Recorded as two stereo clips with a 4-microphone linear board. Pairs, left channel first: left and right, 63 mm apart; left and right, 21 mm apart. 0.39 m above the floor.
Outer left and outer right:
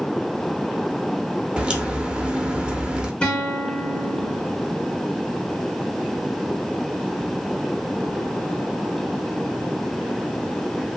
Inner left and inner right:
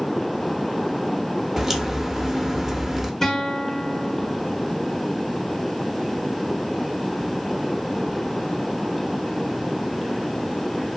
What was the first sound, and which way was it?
A crack, 15° right (ahead or behind).